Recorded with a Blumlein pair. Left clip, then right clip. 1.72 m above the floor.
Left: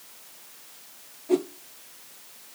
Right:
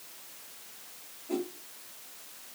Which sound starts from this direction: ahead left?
A whoosh, at 1.3 s.